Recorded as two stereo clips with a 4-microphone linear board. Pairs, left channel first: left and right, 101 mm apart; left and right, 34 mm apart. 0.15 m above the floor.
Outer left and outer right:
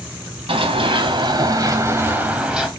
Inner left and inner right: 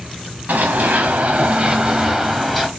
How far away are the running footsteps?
About 1.1 m.